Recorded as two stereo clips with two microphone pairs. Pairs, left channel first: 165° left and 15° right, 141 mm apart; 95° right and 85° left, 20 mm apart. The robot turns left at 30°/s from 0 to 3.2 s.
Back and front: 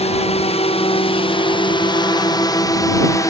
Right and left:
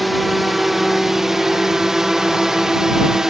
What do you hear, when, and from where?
0.0 s a drone: 175° left; by 3.3 s 125° left